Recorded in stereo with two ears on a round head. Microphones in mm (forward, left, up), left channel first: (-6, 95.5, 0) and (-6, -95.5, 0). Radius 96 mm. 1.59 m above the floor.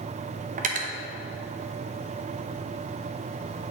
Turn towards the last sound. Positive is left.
turn(degrees=-35)  # may be behind; listen again after turning